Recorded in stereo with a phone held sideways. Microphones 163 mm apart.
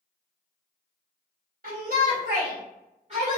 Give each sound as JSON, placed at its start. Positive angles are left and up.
{"t": 1.6, "sound": "a shout", "side_deg": -65, "distance_m": 0.8}